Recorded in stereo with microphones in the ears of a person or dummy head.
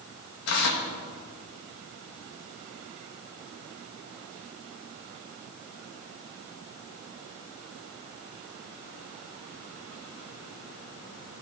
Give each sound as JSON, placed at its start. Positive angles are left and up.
{"t": 0.5, "sound": "tearing paper", "side_deg": 65, "distance_m": 1.3}